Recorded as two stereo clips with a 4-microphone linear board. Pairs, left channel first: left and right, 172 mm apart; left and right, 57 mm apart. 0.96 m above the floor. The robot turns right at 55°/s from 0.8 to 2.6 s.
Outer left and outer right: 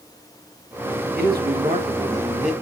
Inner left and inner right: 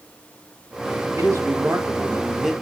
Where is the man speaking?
75° right, 1.4 m; by 2.5 s straight ahead, 1.4 m.